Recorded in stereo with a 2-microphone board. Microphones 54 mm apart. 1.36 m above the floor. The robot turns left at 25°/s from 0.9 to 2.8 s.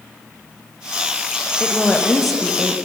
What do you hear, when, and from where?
1.6 s a woman speaking: 20° left (ahead or behind), 1.2 m; by 2.8 s 10° right (ahead or behind), 1.2 m